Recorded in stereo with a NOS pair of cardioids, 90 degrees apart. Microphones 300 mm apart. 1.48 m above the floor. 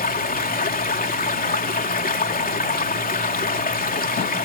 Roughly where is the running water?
Ahead left.